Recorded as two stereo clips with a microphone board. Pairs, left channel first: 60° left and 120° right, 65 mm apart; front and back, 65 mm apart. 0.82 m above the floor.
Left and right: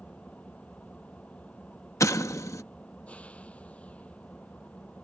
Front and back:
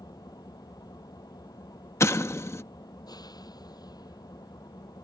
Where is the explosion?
35° left.